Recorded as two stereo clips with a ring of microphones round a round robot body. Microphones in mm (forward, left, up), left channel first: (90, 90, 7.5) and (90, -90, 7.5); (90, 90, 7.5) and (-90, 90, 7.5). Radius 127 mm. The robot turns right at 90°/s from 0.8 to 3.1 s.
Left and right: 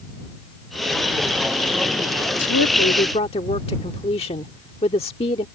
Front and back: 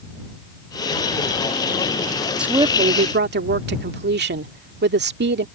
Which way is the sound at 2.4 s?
95° left.